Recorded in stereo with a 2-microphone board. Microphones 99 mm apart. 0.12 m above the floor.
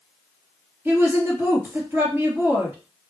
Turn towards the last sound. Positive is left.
turn(degrees=-20)  # may be behind; listen again after turning